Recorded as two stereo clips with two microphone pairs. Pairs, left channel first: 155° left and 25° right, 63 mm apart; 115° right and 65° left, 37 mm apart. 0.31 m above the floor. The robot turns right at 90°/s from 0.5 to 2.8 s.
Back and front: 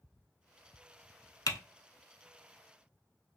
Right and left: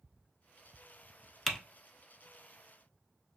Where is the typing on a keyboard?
160° left, 0.6 m; by 1.6 s 175° left, 0.6 m.